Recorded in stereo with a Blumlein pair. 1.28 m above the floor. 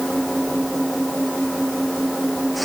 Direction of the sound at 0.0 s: 5° right.